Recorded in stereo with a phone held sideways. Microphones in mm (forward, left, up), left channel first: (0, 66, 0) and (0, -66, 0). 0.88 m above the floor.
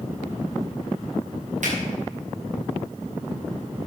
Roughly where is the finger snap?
Right.